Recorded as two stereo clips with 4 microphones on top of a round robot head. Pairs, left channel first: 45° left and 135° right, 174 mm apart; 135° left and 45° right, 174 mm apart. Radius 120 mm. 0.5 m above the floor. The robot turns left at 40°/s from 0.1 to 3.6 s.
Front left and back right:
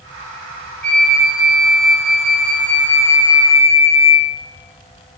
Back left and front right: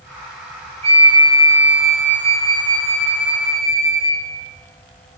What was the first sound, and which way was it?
A flute, 95° right.